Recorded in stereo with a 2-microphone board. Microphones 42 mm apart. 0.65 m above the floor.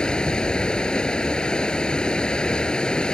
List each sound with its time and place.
0.0 s running water: 20° left (ahead or behind)